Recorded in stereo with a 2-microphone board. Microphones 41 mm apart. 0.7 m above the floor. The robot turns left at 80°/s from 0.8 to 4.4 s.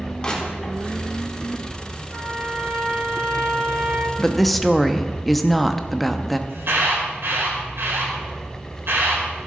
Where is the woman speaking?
15° left (ahead or behind), 0.7 m; by 6.4 s 5° left (ahead or behind), 0.7 m.